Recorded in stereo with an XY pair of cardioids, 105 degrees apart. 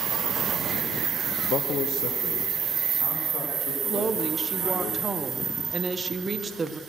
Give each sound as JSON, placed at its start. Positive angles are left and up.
{"t": 1.4, "sound": "a man speaking", "azimuth_deg": 65, "distance_m": 0.7}
{"t": 3.9, "sound": "a woman speaking", "azimuth_deg": -35, "distance_m": 1.2}